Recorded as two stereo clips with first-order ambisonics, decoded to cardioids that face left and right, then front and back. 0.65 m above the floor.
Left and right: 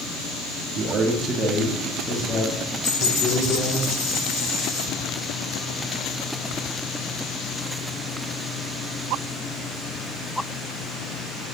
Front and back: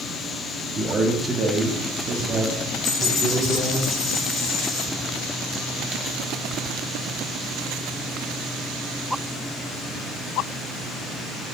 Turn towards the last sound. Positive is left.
turn(degrees=60)